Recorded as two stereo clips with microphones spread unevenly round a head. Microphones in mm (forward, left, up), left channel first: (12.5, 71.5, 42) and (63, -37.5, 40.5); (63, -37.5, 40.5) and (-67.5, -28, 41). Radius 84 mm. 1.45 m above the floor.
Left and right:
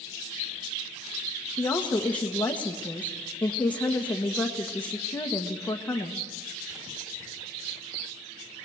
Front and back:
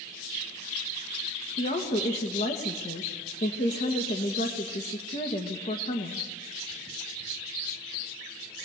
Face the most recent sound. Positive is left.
turn(degrees=35)